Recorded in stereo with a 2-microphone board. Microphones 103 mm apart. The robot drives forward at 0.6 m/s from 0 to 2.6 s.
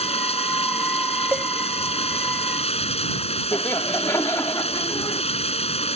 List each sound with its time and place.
0.0 s running water: 85° left; by 6.0 s 90° left
1.3 s a cowbell: 20° right (ahead or behind)
3.5 s laughter: 30° left (ahead or behind)